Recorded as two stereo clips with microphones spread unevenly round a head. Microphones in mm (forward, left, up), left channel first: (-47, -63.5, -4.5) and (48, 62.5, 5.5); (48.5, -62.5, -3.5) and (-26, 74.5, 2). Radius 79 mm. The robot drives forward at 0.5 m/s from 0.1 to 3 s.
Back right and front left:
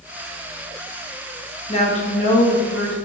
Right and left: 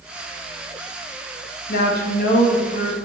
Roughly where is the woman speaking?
Right.